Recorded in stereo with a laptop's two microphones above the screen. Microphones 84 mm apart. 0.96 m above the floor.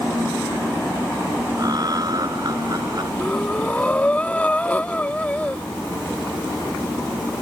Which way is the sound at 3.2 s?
20° left (ahead or behind).